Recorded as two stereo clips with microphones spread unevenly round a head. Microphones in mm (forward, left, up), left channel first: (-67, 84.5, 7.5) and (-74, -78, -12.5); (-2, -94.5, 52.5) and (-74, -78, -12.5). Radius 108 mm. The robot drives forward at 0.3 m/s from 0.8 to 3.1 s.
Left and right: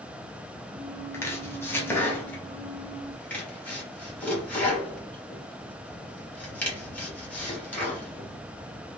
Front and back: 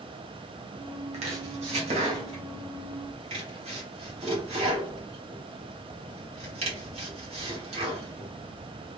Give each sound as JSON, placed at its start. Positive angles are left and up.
{"t": 1.1, "sound": "chopping", "azimuth_deg": 150, "distance_m": 0.9}